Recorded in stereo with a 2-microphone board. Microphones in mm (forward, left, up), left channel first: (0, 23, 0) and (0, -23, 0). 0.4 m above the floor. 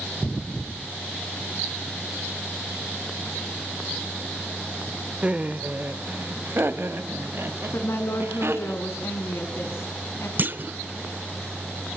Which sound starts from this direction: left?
A woman speaking, at 7.7 s.